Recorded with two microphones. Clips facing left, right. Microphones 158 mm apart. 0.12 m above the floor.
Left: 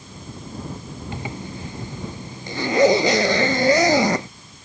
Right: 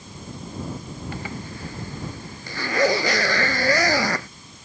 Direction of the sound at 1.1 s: 20° left (ahead or behind).